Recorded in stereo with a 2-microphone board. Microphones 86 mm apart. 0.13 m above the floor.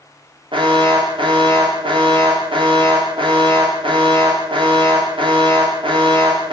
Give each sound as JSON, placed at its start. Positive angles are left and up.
{"t": 0.5, "sound": "an alarm", "side_deg": -75, "distance_m": 9.5}